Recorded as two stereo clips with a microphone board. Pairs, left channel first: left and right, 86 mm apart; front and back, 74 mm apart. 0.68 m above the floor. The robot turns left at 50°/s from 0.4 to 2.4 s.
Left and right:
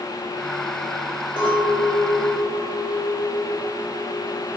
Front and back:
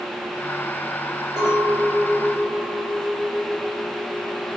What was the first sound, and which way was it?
A clink, 100° left.